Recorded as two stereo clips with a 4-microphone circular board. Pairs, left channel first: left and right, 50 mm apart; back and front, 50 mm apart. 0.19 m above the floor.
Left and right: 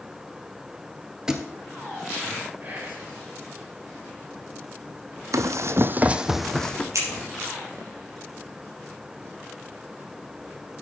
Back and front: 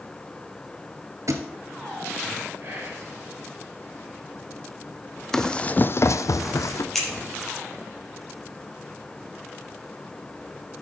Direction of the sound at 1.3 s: 10° right.